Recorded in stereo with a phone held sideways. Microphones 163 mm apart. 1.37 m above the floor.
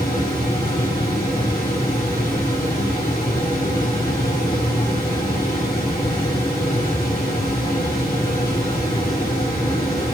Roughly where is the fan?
Left.